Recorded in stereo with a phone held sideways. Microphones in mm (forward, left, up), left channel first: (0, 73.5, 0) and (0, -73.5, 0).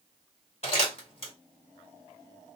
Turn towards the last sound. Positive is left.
turn(degrees=45)  # may be behind; listen again after turning